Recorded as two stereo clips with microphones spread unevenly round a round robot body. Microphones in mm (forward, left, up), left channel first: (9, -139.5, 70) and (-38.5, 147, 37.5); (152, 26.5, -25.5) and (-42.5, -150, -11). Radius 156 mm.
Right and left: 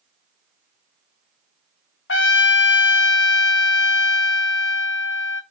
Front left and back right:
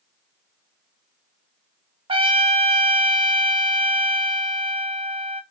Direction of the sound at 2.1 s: 80° right.